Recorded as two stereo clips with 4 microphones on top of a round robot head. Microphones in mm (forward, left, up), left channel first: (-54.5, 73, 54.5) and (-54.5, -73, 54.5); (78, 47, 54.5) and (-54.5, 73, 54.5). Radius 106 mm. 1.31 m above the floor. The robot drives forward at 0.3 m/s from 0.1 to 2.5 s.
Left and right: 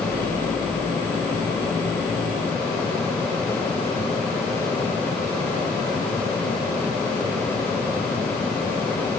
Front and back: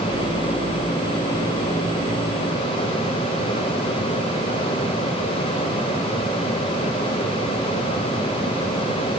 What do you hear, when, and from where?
Only background noise.